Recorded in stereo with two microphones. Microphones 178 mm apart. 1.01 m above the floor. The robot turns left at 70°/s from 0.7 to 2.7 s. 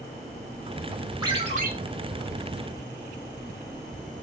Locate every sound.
1.2 s a ringtone: 20° right, 0.8 m; by 1.7 s 55° right, 0.8 m